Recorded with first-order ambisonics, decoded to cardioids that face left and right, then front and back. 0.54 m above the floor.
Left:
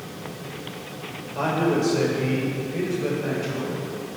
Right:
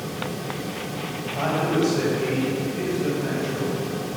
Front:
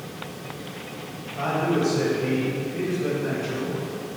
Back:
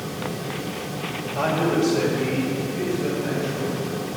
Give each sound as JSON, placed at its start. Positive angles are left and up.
{"t": 1.4, "sound": "a man speaking", "azimuth_deg": 145, "distance_m": 2.5}